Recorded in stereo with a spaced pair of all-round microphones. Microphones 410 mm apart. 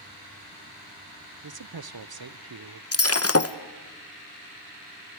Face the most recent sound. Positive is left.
turn(degrees=35)  # may be behind; listen again after turning